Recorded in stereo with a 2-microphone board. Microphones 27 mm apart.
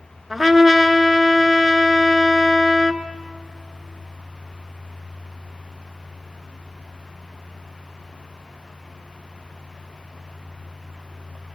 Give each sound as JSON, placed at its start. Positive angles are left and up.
{"t": 0.3, "sound": "a trumpet", "side_deg": -5, "distance_m": 1.0}